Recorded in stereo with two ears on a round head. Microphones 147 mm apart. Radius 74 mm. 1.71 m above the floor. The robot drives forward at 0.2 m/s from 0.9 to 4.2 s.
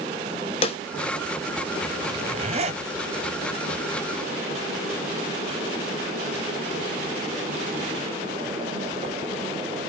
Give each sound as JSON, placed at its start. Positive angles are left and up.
{"t": 0.6, "sound": "a snare drum", "side_deg": 35, "distance_m": 0.7}
{"t": 2.1, "sound": "a zipper", "side_deg": -35, "distance_m": 0.6}